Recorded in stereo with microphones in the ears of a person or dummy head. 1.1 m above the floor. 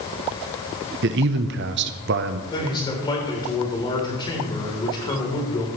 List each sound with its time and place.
1.0 s a man speaking: 55° right (ahead or behind), 0.7 m
2.5 s a man speaking: 25° left (ahead or behind), 3.5 m